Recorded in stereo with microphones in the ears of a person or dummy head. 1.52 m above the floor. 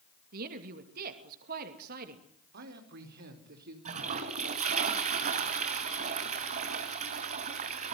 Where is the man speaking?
60° right (ahead or behind), 4 m.